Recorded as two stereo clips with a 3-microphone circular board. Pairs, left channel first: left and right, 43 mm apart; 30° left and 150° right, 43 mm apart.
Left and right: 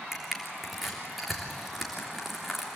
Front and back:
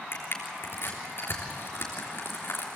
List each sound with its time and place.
0.1 s crushing: 5° right, 3.5 m